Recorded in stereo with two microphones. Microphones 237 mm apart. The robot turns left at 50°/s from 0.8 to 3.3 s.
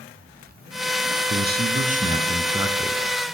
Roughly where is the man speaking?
Right.